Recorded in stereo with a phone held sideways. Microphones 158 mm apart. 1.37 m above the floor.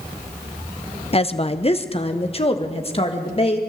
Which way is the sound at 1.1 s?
40° left (ahead or behind).